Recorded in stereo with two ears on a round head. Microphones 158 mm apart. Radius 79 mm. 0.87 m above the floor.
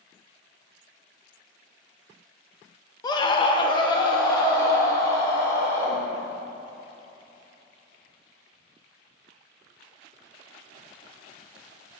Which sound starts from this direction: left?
A scream, at 3.0 s.